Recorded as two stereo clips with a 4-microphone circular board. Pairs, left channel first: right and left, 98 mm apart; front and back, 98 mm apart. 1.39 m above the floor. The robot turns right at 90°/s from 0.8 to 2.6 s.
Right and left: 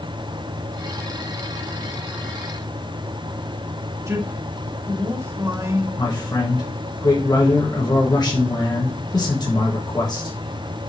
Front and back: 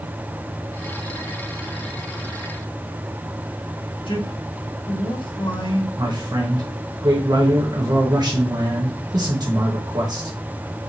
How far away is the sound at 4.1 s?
About 2 m.